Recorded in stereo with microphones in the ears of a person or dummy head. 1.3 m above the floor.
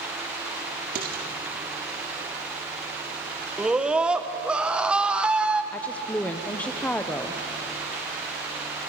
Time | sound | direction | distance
0.9 | dishes clattering | 50° right (ahead or behind) | 1.9 m
3.6 | a scream | 5° right (ahead or behind) | 1.1 m
5.7 | a woman speaking | 10° left (ahead or behind) | 0.7 m